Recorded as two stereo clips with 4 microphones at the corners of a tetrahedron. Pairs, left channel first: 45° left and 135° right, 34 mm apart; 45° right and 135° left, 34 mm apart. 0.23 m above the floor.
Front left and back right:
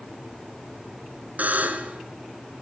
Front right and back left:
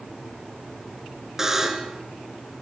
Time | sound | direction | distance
1.4 | a buzzer | 150° right | 2 m